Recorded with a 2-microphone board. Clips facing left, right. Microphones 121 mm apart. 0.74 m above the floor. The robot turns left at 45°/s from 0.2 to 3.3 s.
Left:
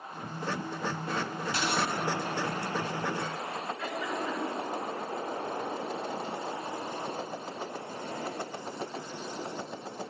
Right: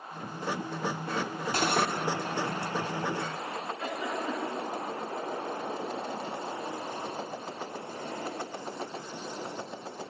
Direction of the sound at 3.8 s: 35° right (ahead or behind).